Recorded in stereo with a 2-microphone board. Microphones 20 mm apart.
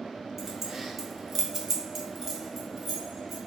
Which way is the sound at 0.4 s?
10° right (ahead or behind).